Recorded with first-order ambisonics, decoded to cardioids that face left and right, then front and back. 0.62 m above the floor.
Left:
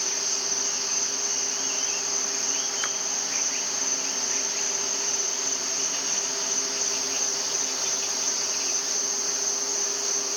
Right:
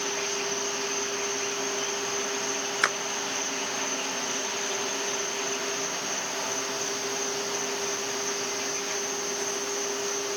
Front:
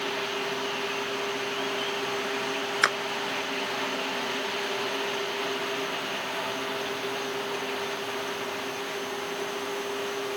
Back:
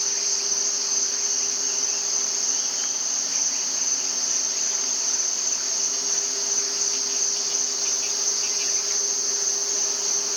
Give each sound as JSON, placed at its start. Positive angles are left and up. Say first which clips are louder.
{"t": 0.0, "sound": "an insect", "louder": "left 2 dB, back 4 dB", "azimuth_deg": 155}
{"t": 2.8, "sound": "a clap", "louder": "right 4 dB, front 5 dB", "azimuth_deg": -30}